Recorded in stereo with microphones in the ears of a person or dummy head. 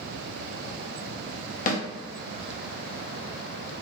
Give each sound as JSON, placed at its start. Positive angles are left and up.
{"t": 1.7, "sound": "a snare drum", "side_deg": 40, "distance_m": 0.6}